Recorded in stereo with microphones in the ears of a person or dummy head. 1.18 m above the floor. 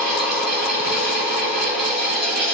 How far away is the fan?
About 1.0 m.